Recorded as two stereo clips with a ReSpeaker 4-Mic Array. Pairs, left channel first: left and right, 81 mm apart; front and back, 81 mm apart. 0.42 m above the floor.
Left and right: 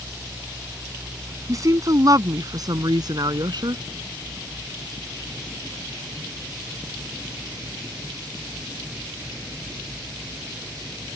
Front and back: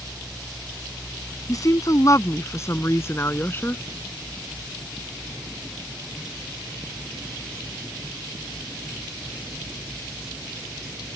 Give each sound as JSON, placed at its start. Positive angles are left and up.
{"t": 1.5, "sound": "a woman speaking", "azimuth_deg": -45}